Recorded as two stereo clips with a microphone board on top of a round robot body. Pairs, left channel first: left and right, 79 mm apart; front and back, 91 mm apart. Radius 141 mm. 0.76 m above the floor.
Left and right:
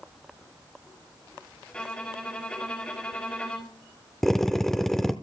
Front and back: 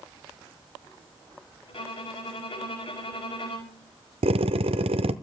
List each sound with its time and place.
1.7 s a violin: 15° left, 6 m
4.2 s a drill: 175° left, 0.8 m